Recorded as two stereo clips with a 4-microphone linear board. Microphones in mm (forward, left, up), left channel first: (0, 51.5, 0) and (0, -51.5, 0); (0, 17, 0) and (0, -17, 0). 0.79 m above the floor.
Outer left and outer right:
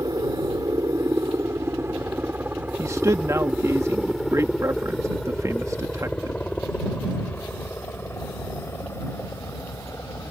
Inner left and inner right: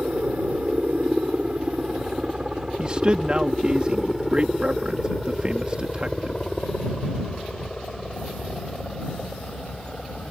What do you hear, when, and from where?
0.0 s a helicopter: 40° right (ahead or behind); by 10.3 s 30° left (ahead or behind)
2.8 s a man speaking: 30° right (ahead or behind)